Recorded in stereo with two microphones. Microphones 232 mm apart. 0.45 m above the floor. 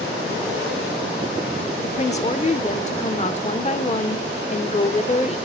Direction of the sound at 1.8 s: 30° left (ahead or behind).